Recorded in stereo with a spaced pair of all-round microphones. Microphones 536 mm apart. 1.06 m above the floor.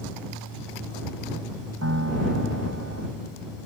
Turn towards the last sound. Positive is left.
turn(degrees=-25)  # may be behind; listen again after turning